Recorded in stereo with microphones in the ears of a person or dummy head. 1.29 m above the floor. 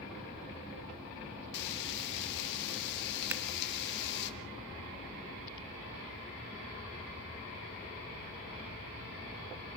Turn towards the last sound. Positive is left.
turn(degrees=-20)  # may be behind; listen again after turning